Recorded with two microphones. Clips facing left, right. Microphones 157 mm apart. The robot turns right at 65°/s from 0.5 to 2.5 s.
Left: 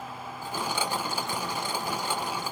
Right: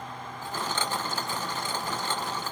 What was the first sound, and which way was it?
Only background noise.